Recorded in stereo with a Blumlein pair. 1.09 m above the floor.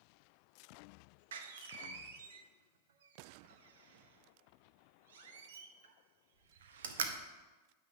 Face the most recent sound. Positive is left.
turn(degrees=-60)